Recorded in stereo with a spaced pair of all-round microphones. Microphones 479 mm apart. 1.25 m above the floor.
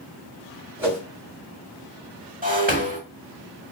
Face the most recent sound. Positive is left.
turn(degrees=-20)  # may be behind; listen again after turning